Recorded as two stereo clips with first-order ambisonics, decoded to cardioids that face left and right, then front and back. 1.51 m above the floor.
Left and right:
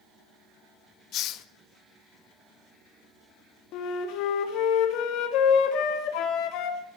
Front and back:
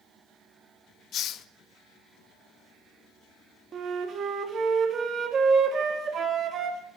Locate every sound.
1.1 s a hiss: 50° left, 0.6 m
3.7 s a flute: 115° left, 1.8 m